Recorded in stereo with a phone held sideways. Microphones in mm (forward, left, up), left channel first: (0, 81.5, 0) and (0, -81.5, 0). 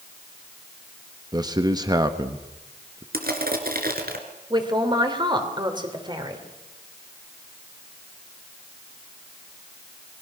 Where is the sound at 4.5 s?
30° right (ahead or behind), 3.5 m.